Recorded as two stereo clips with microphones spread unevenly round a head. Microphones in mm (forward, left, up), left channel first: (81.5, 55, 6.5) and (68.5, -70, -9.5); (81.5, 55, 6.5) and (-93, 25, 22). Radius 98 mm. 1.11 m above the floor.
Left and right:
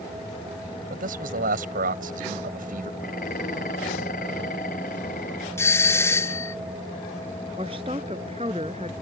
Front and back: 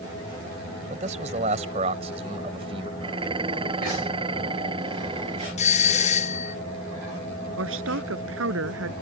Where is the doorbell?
15° left.